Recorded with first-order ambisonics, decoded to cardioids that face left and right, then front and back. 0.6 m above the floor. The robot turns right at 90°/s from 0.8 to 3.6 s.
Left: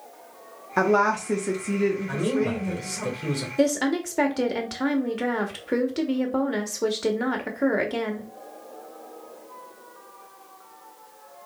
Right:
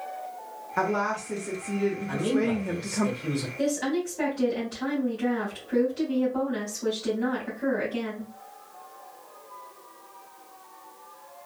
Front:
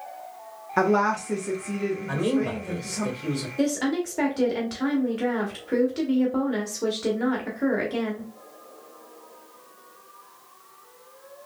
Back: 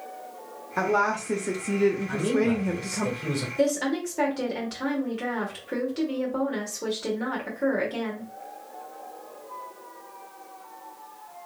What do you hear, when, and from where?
0.8 s a woman speaking: 60° left, 0.6 m; by 3.1 s 95° right, 0.6 m
2.1 s a man speaking: 5° left, 1.9 m; by 3.5 s 130° left, 1.9 m
3.6 s a woman speaking: 80° left, 1.5 m